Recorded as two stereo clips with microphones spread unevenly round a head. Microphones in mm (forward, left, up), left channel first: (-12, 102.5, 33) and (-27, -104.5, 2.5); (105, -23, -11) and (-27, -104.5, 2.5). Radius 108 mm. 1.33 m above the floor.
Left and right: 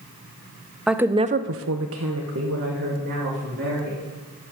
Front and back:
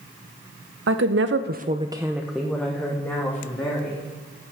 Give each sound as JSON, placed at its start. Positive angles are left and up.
{"t": 0.9, "sound": "a woman speaking", "azimuth_deg": 180, "distance_m": 0.9}